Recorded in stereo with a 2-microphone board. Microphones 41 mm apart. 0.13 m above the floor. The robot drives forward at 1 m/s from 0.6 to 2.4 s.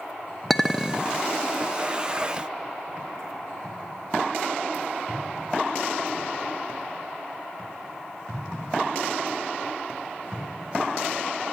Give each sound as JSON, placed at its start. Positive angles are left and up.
{"t": 0.5, "sound": "a clink", "side_deg": 0, "distance_m": 0.6}